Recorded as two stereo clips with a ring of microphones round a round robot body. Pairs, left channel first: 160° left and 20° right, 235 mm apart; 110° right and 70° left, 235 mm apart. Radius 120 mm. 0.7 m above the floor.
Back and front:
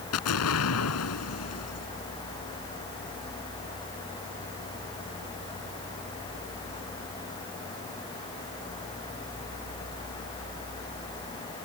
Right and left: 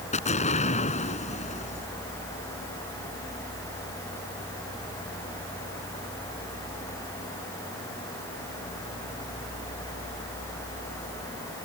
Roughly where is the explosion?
Behind.